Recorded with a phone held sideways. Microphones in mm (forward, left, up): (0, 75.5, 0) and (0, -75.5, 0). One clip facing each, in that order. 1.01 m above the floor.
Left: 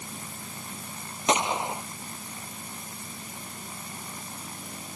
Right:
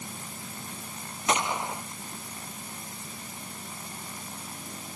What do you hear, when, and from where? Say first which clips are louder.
1.3 s a gunshot: left 2 dB; 20° left (ahead or behind)